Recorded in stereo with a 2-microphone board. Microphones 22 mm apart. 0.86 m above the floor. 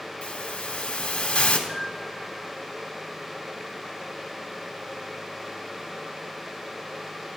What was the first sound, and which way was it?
A hiss, 80° left.